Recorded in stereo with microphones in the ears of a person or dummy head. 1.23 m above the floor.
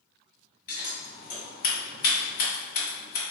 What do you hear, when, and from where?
0.7 s scissors: 55° left (ahead or behind), 1.7 m